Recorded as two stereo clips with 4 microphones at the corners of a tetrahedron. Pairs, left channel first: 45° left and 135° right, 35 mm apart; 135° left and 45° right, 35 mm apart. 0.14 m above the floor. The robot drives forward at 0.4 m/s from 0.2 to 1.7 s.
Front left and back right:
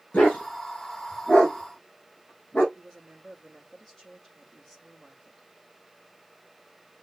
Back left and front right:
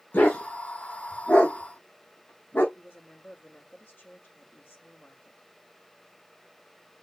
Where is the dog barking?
100° left, 5 m; by 2.6 s 105° left, 5 m.